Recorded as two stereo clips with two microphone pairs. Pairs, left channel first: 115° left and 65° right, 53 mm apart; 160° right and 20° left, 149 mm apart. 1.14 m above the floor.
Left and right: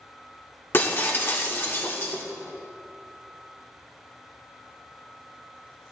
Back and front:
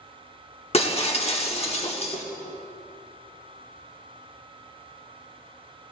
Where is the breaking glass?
155° left, 1.1 m.